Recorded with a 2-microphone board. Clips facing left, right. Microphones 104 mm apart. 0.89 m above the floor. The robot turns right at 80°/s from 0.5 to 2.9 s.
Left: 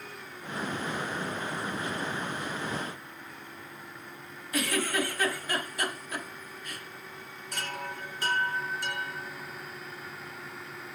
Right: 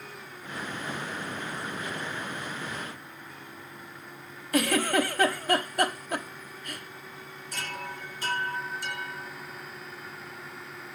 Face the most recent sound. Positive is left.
turn(degrees=70)  # may be behind; listen again after turning